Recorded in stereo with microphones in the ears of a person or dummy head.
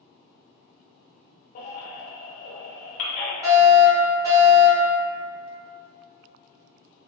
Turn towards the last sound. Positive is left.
turn(degrees=-20)  # may be behind; listen again after turning